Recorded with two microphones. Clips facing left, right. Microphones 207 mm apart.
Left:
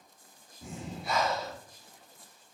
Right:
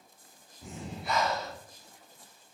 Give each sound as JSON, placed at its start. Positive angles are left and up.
{"t": 0.6, "sound": "breathing", "side_deg": 45, "distance_m": 1.5}